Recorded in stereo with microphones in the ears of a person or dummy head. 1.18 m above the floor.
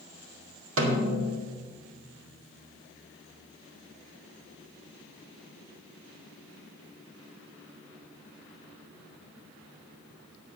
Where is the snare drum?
75° right (ahead or behind), 2 m.